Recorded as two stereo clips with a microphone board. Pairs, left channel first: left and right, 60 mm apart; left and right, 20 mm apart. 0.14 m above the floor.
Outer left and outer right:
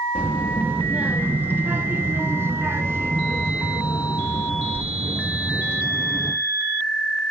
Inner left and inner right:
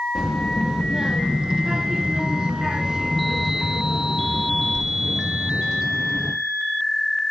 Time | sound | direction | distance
0.1 | a child speaking | 25° right (ahead or behind) | 1.9 m